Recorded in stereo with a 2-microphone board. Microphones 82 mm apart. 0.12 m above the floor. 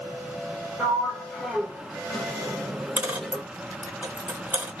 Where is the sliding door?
Centre (ahead or behind), 1.1 m.